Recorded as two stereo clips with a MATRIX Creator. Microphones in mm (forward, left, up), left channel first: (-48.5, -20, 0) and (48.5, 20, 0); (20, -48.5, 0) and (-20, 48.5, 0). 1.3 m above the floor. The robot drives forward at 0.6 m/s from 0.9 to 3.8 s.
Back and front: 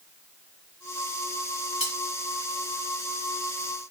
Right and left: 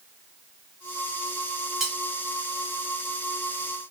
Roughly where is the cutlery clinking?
Behind.